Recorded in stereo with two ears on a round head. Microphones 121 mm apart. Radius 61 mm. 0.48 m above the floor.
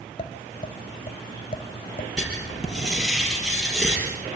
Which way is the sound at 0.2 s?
45° left (ahead or behind).